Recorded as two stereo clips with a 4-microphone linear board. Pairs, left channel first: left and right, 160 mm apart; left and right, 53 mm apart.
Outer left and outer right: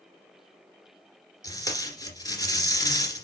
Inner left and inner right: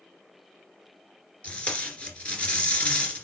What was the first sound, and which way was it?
Tape being pulled, 20° left (ahead or behind).